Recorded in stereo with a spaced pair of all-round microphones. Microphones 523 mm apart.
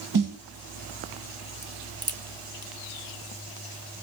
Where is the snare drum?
40° right (ahead or behind), 0.8 m.